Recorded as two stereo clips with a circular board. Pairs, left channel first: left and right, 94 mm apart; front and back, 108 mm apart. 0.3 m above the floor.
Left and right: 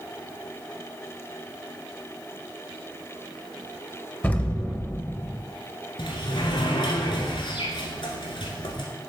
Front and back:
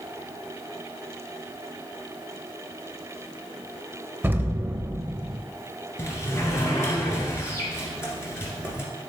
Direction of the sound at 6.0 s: 65° left.